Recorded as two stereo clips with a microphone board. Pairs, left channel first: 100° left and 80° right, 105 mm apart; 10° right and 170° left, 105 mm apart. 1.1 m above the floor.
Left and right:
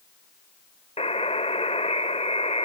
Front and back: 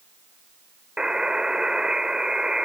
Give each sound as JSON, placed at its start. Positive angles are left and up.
{"t": 1.0, "sound": "a buzzer", "azimuth_deg": 85}